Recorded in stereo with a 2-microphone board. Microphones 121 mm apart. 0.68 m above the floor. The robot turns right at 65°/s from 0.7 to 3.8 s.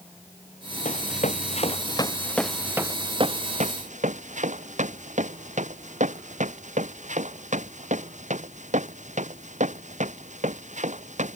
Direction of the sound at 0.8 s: 75° left (ahead or behind).